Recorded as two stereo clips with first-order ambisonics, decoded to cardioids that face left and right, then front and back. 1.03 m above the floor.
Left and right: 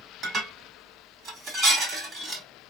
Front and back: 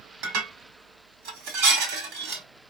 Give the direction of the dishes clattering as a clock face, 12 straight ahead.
5 o'clock.